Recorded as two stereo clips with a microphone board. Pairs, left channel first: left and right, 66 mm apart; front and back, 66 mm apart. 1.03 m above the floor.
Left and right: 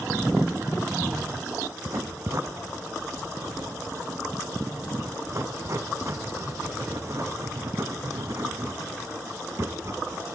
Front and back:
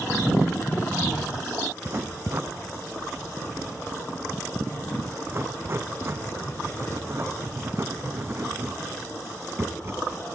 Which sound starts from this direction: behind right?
Writing, at 1.9 s.